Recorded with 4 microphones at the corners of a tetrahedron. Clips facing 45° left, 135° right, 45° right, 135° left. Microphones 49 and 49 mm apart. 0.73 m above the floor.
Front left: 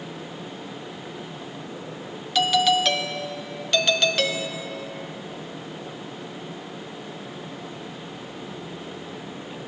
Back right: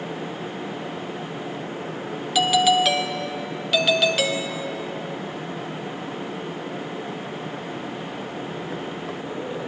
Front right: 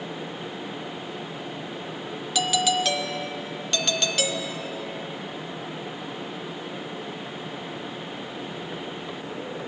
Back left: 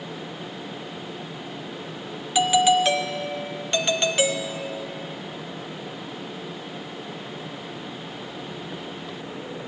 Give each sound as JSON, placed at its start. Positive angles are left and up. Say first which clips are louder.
{"t": 2.4, "sound": "a doorbell", "louder": "back right 2 dB, back left 6 dB", "azimuth_deg": 150, "distance_m": 0.9}